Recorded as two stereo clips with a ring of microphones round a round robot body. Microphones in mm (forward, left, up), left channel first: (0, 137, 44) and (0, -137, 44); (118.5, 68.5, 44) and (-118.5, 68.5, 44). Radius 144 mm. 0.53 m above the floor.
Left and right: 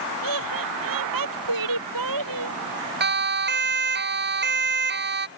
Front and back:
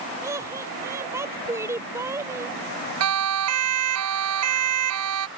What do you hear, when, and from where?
0.2 s laughter: 100° right
3.0 s a siren: 145° right